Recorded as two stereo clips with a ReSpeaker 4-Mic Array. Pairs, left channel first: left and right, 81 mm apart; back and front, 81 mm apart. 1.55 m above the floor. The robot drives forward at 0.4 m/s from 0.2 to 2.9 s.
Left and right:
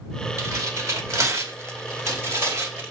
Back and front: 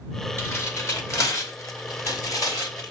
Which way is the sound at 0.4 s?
125° right.